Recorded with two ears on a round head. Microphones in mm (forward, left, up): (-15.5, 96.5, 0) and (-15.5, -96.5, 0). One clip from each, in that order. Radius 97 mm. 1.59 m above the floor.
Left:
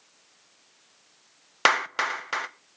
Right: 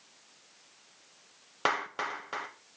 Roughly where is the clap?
Left.